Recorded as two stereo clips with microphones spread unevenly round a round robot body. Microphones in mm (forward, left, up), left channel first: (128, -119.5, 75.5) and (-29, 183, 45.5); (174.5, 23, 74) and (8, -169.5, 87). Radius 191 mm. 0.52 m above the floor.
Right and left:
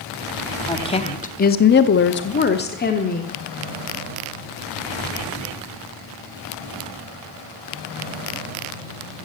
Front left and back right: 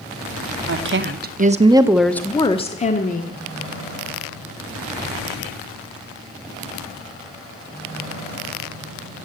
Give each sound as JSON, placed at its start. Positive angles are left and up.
{"t": 0.7, "sound": "a woman speaking", "azimuth_deg": -140, "distance_m": 1.1}